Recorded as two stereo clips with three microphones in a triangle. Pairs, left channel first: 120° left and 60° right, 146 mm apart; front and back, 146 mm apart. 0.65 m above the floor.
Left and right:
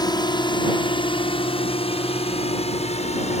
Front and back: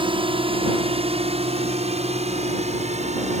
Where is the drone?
160° left; by 3.4 s 150° left.